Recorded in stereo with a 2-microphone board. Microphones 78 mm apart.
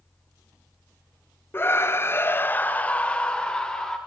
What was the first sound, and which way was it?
A scream, 30° left (ahead or behind).